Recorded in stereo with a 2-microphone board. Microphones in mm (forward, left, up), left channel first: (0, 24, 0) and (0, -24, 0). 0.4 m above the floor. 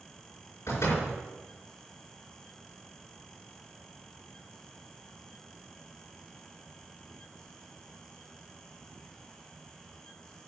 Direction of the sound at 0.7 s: 70° left (ahead or behind).